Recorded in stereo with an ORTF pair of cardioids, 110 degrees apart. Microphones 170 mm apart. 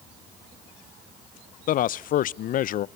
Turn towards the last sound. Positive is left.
turn(degrees=55)